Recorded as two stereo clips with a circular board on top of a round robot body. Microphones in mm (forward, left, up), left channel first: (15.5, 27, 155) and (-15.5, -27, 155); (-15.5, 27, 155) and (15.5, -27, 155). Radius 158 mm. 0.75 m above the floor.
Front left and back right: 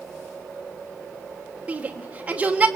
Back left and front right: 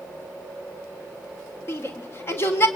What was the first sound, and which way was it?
A shout, 170° left.